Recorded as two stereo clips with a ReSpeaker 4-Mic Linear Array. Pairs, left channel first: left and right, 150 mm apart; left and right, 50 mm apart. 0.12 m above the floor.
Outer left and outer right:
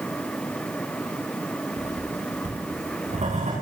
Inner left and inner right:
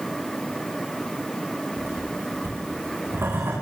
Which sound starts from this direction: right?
Writing, at 1.8 s.